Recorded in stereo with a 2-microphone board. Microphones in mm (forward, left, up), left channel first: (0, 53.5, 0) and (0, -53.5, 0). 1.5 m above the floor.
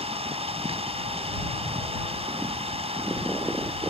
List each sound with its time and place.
0.0 s an engine running: 70° right (ahead or behind)